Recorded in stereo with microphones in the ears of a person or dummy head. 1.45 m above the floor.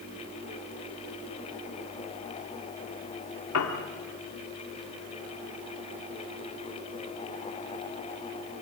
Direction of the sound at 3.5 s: 80° left.